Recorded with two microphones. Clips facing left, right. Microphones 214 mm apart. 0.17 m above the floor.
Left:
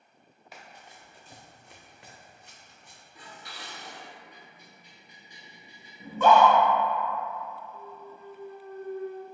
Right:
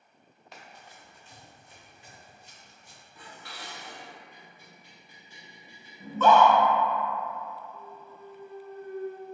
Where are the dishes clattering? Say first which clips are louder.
Right 1 dB; 15° left (ahead or behind), 1.5 m.